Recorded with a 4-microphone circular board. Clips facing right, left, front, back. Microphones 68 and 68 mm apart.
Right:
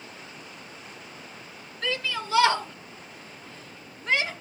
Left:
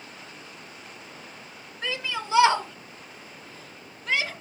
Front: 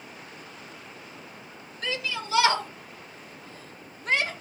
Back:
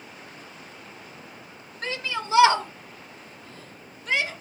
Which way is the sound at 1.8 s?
150° left.